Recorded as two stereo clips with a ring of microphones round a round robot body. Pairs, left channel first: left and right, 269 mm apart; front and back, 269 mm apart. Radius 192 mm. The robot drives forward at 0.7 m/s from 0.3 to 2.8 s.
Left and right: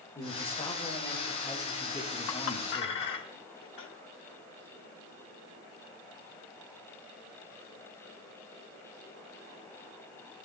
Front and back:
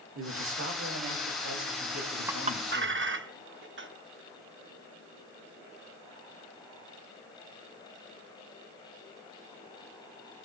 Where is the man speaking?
160° left, 1.7 m; by 3.0 s 170° left, 3 m.